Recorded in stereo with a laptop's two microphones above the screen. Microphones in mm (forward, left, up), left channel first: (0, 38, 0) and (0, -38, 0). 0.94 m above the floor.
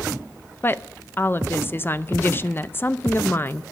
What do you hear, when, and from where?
0.6 s a woman speaking: 30° left (ahead or behind), 0.5 m